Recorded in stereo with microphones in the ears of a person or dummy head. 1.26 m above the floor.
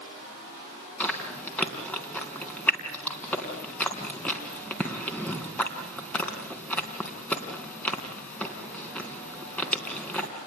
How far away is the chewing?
About 3.5 m.